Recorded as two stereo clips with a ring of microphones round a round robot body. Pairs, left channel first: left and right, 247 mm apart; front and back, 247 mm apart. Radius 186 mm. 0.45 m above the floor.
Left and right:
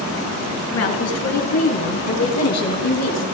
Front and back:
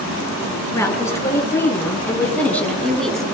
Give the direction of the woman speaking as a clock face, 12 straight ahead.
9 o'clock.